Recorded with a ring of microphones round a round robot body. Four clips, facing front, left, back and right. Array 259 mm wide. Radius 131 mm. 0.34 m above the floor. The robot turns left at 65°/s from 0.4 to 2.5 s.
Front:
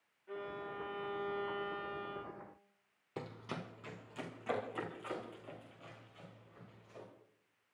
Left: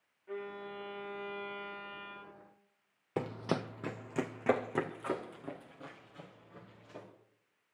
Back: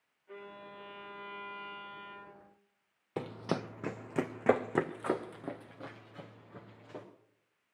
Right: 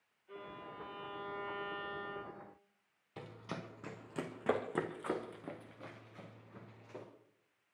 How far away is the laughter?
No laughter in this recording.